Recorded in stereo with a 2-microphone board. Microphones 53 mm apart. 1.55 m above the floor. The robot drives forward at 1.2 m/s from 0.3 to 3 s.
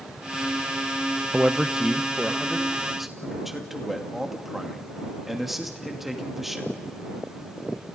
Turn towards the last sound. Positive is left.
turn(degrees=-5)  # may be behind; listen again after turning